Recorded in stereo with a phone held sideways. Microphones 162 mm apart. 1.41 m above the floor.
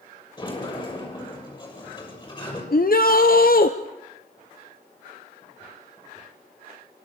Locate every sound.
0.4 s a sliding door: 30° left (ahead or behind), 6.5 m
2.7 s a shout: 65° left (ahead or behind), 0.9 m